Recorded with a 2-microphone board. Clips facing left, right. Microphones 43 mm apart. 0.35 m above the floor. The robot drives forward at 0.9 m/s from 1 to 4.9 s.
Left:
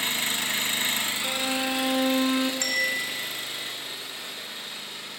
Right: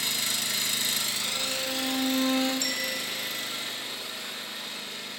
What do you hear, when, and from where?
0.0 s an engine running: 35° left (ahead or behind), 0.7 m; by 5.2 s 5° left (ahead or behind), 4 m
1.2 s a violin: 65° left (ahead or behind), 0.5 m; by 2.5 s 25° left (ahead or behind), 1.0 m
2.6 s a bell: 55° left (ahead or behind), 0.9 m; by 3.8 s 45° left (ahead or behind), 1.0 m